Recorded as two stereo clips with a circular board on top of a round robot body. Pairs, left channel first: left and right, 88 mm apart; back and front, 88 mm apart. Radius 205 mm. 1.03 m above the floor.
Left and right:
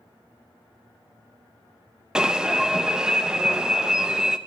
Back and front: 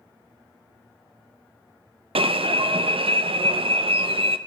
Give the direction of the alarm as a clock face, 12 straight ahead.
12 o'clock.